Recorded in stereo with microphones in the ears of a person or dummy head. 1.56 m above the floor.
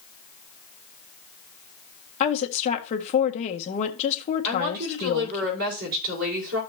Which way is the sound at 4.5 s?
50° right (ahead or behind).